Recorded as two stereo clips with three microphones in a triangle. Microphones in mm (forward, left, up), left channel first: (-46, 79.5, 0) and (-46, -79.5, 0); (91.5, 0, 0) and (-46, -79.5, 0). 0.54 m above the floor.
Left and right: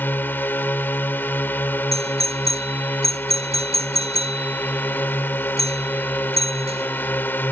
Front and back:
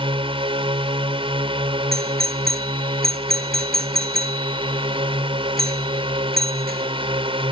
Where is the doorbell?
140° right.